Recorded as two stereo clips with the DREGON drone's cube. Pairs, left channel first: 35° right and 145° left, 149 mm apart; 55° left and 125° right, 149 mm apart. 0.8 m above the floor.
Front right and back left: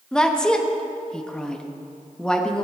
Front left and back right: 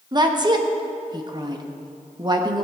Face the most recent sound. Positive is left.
turn(degrees=-115)